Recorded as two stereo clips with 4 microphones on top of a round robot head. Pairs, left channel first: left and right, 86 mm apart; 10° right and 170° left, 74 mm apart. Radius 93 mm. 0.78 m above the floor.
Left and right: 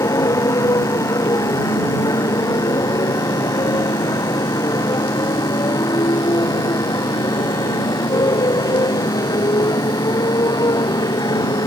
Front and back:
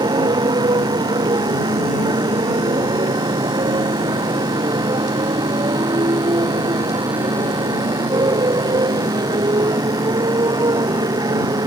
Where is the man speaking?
No man speaking in this recording.